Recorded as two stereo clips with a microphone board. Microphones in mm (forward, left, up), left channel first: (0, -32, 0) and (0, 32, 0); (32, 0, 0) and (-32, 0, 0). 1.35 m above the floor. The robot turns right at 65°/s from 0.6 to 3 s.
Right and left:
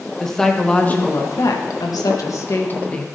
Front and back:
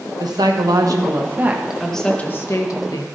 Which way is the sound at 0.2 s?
170° right.